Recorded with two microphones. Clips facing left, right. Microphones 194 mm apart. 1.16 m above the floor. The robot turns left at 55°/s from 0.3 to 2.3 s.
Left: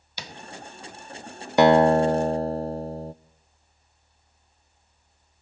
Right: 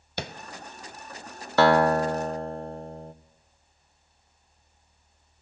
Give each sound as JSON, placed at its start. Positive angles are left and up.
{"t": 0.2, "sound": "tapping", "side_deg": -55, "distance_m": 1.1}
{"t": 1.6, "sound": "a guitar", "azimuth_deg": 150, "distance_m": 0.6}